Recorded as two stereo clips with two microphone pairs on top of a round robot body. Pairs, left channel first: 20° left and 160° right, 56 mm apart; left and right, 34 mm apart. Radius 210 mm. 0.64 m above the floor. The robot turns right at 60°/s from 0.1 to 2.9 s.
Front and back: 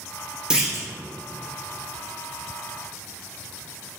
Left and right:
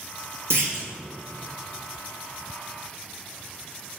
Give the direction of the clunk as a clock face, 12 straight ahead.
3 o'clock.